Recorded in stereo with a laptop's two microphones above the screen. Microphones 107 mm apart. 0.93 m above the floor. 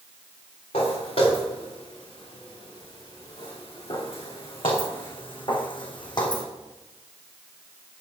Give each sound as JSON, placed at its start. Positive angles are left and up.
{"t": 0.7, "sound": "footsteps", "side_deg": 65, "distance_m": 5.0}